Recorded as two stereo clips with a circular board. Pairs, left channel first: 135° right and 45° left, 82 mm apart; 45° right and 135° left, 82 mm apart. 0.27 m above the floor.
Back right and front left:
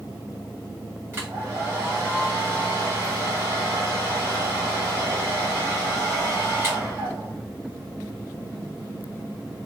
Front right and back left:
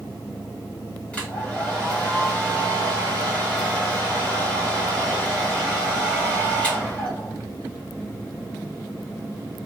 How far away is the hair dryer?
About 1.8 m.